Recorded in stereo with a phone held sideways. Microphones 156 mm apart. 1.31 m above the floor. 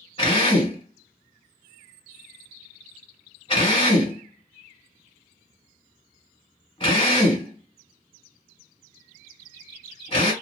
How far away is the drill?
About 1.7 m.